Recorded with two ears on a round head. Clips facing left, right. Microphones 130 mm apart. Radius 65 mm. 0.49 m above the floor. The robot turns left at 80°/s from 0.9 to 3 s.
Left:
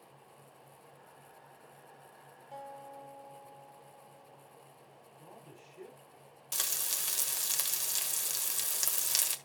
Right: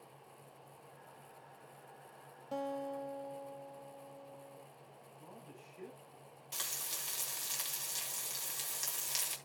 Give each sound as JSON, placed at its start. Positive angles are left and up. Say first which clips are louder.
{"t": 2.5, "sound": "a guitar", "louder": "right 7 dB", "azimuth_deg": -70, "distance_m": 0.7}
{"t": 5.2, "sound": "a man speaking", "louder": "left 1 dB", "side_deg": 40, "distance_m": 6.0}
{"t": 6.5, "sound": "frying", "louder": "left 4 dB", "side_deg": 60, "distance_m": 1.4}